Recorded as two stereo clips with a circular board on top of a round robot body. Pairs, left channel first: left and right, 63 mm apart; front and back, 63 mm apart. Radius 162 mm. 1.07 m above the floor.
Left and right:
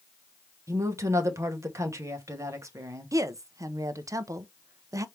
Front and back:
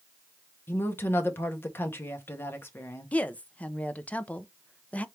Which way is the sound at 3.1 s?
65° right.